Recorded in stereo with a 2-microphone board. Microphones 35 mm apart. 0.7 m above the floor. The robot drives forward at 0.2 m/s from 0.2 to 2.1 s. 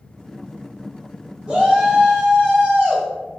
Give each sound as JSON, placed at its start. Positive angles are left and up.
{"t": 1.5, "sound": "a shout", "side_deg": -15, "distance_m": 1.5}